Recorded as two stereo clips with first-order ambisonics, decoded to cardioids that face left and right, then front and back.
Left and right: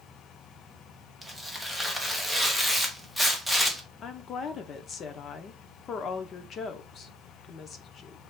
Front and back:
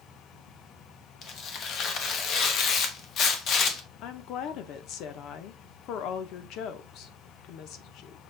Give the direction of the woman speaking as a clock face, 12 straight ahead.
11 o'clock.